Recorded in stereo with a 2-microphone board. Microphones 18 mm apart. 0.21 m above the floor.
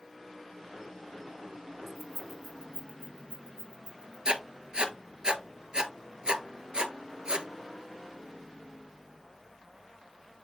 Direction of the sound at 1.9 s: 25° right (ahead or behind).